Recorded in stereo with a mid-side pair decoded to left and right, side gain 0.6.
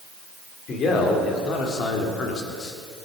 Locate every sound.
0.7 s a man speaking: 50° left, 4 m; by 2.8 s 35° left, 3 m